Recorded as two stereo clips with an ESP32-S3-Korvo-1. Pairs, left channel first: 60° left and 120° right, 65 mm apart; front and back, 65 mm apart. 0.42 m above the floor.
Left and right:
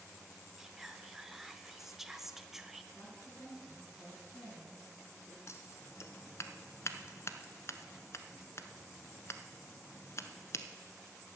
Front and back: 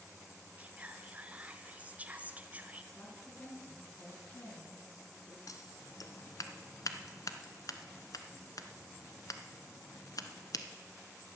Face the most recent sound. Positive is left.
turn(degrees=20)